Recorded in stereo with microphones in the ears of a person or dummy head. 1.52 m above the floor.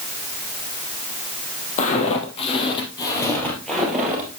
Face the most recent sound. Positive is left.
turn(degrees=-10)  # may be behind; listen again after turning